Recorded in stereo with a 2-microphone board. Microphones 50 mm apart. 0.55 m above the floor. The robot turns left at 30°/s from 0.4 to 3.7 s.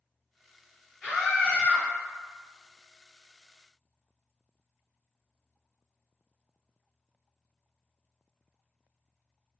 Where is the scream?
5° left (ahead or behind), 1.6 m; by 1.8 s 20° left (ahead or behind), 1.6 m.